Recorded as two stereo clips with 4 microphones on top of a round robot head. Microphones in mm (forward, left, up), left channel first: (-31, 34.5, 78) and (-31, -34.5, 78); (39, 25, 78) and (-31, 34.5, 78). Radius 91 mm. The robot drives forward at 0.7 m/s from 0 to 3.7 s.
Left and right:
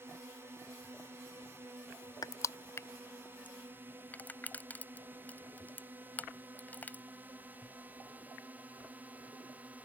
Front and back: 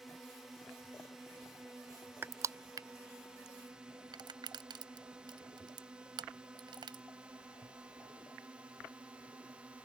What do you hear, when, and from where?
0.0 s a drone: 100° right; by 9.8 s 130° right
2.2 s crushing: 115° left; by 7.0 s 155° left